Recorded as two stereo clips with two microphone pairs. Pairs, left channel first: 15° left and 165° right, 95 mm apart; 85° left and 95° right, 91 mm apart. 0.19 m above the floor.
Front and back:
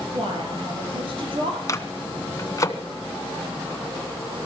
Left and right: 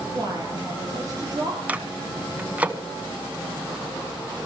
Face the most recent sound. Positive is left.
turn(degrees=-25)